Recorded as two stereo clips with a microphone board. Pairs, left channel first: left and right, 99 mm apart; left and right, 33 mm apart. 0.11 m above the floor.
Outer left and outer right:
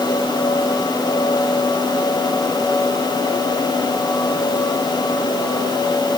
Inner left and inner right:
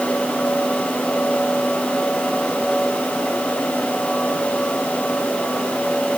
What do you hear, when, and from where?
Only background noise.